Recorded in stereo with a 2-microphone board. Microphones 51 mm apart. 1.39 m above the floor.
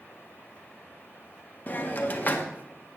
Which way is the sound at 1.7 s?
35° left (ahead or behind).